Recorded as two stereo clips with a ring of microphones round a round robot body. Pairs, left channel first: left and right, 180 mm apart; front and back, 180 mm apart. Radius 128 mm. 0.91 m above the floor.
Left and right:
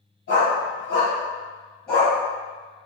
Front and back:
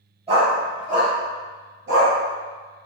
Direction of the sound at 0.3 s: 125° left.